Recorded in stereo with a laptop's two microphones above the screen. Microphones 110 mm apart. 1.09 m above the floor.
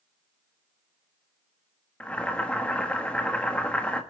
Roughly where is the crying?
No crying in this recording.